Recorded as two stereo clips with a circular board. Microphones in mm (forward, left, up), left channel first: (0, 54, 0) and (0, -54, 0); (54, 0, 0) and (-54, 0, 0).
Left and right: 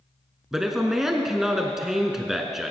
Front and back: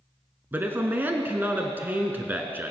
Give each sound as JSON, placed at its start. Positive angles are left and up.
{"t": 0.5, "sound": "a man speaking", "azimuth_deg": -170, "distance_m": 1.0}